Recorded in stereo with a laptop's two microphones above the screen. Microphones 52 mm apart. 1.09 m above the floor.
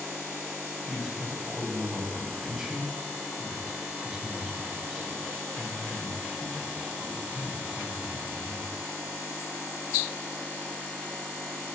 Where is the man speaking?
10° right (ahead or behind), 6 m.